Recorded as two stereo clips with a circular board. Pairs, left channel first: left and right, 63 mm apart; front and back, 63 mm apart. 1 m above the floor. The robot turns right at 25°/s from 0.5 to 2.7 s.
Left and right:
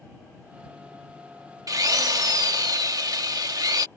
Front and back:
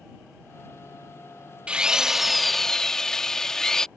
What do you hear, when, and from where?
1.7 s a drill: 110° right; by 3.9 s 85° right